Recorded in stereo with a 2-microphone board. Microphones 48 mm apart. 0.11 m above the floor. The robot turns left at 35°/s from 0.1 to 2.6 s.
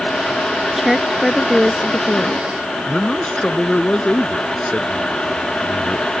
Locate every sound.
0.8 s a woman speaking: 170° right; by 2.5 s 130° left
2.9 s a man speaking: 20° left (ahead or behind)